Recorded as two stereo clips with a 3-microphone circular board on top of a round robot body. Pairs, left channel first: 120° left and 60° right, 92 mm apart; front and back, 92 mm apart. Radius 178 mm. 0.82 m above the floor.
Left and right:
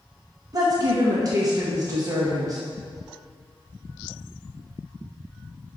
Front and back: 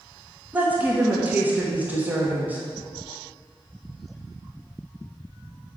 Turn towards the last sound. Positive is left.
turn(degrees=-110)